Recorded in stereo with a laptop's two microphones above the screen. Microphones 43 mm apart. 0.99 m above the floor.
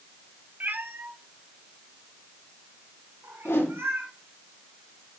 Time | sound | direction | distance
0.6 | a cat meowing | 45° right (ahead or behind) | 0.8 m
3.5 | a whoosh | 80° left | 3 m